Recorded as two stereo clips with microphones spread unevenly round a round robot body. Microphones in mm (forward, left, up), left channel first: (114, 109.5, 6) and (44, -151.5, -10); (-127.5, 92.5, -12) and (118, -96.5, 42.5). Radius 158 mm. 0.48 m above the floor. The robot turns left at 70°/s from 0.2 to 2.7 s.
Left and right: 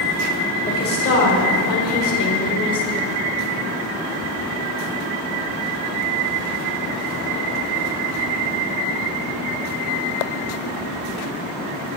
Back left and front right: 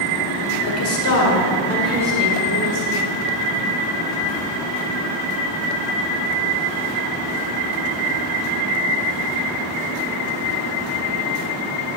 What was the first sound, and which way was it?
A woman speaking, 145° left.